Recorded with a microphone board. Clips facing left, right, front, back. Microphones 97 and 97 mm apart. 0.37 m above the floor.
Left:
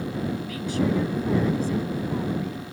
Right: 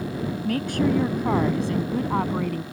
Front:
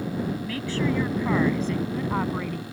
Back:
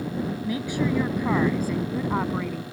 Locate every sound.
0.5 s a woman speaking: 110° right; by 2.6 s 90° right